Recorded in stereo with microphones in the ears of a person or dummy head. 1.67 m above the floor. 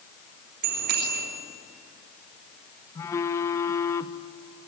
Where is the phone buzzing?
15° left (ahead or behind), 1.1 m.